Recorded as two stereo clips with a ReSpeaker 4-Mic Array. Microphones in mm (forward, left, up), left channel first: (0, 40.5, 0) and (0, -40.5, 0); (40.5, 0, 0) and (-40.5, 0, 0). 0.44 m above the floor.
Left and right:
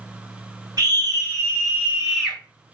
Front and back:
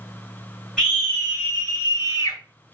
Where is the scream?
100° right, 1.8 m; by 2.4 s 15° left, 1.8 m.